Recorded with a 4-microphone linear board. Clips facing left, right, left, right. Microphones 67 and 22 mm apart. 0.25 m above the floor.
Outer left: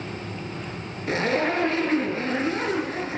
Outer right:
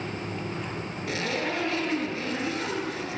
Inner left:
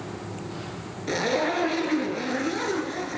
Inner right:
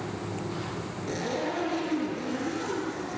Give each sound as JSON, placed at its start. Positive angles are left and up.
{"t": 1.1, "sound": "a zipper", "side_deg": 40, "distance_m": 3.5}